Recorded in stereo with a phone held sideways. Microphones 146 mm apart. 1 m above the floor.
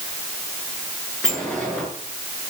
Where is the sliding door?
5° left (ahead or behind), 9 m.